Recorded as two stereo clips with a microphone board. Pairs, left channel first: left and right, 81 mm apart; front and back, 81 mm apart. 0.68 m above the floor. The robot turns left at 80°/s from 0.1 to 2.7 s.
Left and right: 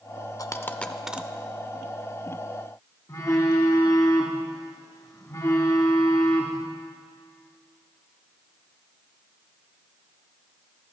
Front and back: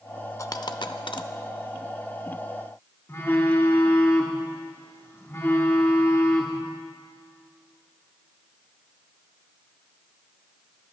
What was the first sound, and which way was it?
A dropped coin, 50° left.